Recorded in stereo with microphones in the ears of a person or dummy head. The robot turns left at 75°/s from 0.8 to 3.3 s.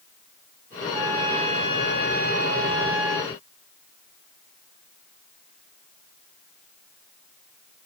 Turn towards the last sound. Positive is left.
turn(degrees=170)